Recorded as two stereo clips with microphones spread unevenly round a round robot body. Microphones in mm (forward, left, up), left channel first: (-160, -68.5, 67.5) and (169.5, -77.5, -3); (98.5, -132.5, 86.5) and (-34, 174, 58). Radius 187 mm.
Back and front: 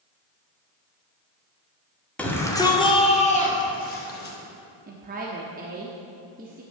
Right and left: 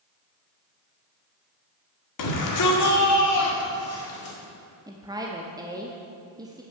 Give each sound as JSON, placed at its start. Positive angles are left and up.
{"t": 2.2, "sound": "a shout", "azimuth_deg": -90, "distance_m": 1.8}
{"t": 4.9, "sound": "a woman speaking", "azimuth_deg": 40, "distance_m": 0.8}